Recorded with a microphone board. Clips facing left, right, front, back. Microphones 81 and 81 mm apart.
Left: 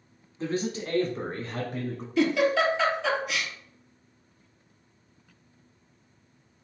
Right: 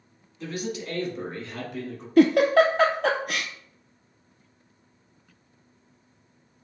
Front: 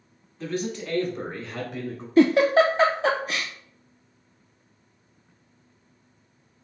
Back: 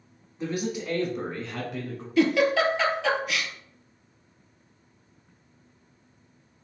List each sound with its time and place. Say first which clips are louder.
0.4 s a man speaking: left 3 dB, even; 120° left, 1.2 m; by 2.1 s 75° left, 1.6 m
2.2 s a giggle: right 6 dB, front 4 dB; 55° right, 0.6 m